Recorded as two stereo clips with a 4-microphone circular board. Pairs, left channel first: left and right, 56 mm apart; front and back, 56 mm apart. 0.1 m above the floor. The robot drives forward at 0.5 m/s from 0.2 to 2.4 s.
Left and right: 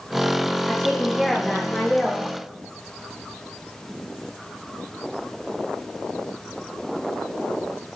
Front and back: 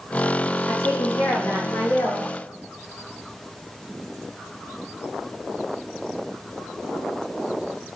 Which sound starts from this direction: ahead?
A woman speaking, at 0.7 s.